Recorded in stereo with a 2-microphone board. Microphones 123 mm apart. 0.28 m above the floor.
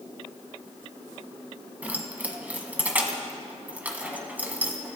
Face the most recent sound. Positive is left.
turn(degrees=-15)  # may be behind; listen again after turning